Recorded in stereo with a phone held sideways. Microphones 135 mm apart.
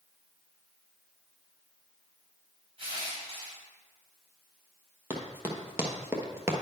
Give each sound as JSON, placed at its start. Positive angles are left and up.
{"t": 2.8, "sound": "crushing", "side_deg": -45, "distance_m": 2.5}
{"t": 5.1, "sound": "running footsteps", "side_deg": -15, "distance_m": 1.6}